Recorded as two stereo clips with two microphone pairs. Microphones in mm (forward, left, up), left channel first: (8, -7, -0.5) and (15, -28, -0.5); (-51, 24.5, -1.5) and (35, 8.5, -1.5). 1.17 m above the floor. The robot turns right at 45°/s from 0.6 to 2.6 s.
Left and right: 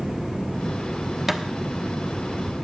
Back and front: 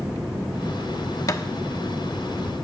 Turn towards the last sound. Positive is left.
turn(degrees=-85)